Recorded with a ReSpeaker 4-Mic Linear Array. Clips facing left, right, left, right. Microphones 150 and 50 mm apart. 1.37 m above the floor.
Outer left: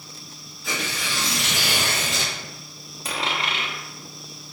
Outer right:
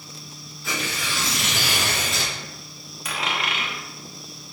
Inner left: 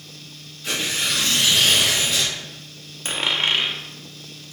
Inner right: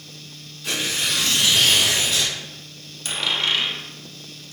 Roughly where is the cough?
I don't hear a cough.